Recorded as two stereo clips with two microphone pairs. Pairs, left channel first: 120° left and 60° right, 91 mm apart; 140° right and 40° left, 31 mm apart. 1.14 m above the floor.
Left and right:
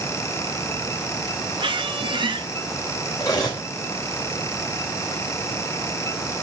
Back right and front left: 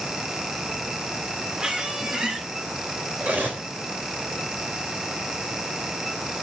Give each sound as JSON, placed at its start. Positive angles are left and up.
{"t": 1.6, "sound": "a squeak", "azimuth_deg": -30, "distance_m": 1.2}
{"t": 3.2, "sound": "cutlery clinking", "azimuth_deg": 70, "distance_m": 3.0}